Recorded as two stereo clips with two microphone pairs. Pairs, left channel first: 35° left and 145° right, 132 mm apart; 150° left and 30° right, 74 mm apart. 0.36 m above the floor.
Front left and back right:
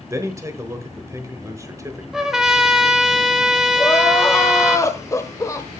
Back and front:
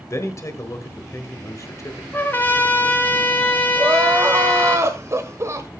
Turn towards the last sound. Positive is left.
turn(degrees=-15)